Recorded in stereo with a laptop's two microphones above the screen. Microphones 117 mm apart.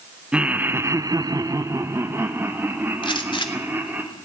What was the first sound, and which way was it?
Laughter, 10° right (ahead or behind).